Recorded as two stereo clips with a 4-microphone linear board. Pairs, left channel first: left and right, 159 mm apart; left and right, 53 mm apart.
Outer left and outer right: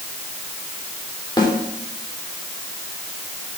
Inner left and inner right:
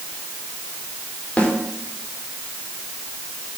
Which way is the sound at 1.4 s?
25° left (ahead or behind).